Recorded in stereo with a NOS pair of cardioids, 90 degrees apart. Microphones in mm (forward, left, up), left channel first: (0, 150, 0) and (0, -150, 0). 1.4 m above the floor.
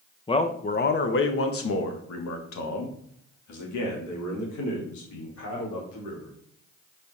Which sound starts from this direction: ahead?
A man speaking, at 0.3 s.